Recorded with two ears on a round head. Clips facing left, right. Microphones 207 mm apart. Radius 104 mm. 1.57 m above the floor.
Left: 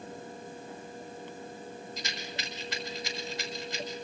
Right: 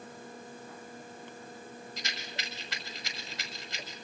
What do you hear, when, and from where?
2.0 s a rattle: 75° left (ahead or behind), 6 m